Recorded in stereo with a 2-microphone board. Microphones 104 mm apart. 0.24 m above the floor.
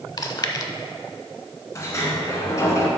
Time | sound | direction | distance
0.2 | chewing | 40° left (ahead or behind) | 0.6 m
1.8 | a sliding door | 30° left (ahead or behind) | 1.7 m